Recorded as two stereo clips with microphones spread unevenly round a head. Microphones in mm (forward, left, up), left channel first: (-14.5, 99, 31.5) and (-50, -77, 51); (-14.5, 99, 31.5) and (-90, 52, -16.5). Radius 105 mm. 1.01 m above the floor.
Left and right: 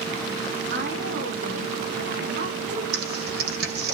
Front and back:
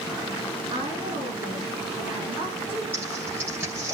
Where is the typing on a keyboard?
60° right, 1.0 m.